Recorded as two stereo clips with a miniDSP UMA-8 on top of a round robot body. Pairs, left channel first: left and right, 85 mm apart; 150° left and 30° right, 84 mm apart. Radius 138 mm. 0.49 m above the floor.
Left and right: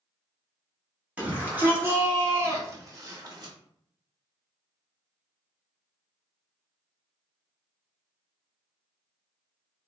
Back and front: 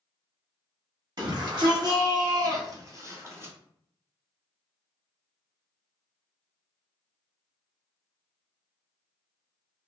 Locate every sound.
1.2 s a shout: 20° right, 1.6 m; by 3.5 s 80° right, 1.2 m